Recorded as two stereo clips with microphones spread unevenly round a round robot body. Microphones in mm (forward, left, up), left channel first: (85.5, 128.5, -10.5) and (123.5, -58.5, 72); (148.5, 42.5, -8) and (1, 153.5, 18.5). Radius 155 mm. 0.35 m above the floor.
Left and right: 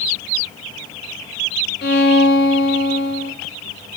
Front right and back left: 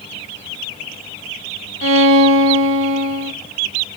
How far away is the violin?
About 0.6 m.